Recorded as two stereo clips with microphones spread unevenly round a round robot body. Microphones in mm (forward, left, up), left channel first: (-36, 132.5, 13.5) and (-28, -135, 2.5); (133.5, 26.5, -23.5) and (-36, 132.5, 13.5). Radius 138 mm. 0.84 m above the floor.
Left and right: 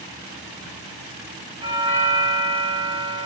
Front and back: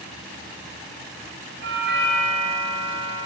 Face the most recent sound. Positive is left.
turn(degrees=-155)